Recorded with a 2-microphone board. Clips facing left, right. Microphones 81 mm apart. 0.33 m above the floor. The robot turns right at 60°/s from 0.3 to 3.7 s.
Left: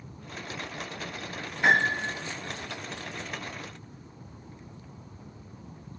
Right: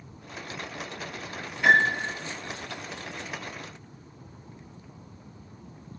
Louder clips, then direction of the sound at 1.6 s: Right 2 dB; 25° left.